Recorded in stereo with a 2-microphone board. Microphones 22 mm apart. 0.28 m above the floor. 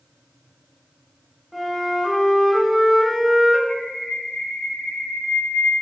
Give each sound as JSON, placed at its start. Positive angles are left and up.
{"t": 1.5, "sound": "a flute", "side_deg": 0, "distance_m": 1.1}
{"t": 3.7, "sound": "a bird", "side_deg": 85, "distance_m": 0.6}